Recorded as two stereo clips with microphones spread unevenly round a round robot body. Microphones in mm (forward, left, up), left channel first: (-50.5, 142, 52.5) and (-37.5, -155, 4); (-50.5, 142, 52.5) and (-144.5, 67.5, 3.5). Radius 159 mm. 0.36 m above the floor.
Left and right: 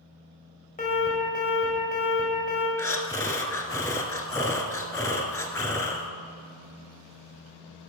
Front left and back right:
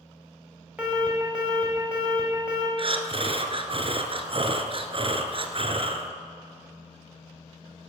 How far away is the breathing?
About 1.1 m.